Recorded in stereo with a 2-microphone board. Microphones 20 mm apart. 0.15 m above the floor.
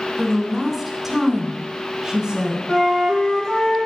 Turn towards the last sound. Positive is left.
turn(degrees=30)  # may be behind; listen again after turning